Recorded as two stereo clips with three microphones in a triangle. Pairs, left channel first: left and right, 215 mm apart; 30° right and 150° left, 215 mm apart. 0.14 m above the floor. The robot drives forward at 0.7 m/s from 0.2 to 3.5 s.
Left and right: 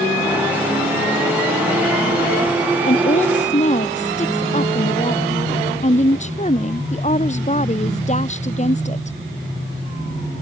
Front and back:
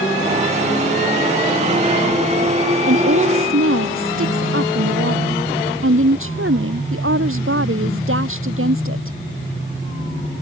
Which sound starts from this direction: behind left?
A woman speaking, at 2.9 s.